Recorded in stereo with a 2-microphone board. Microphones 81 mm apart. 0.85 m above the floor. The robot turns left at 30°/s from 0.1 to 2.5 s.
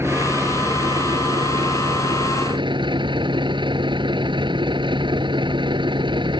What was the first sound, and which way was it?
A vehicle, 30° right.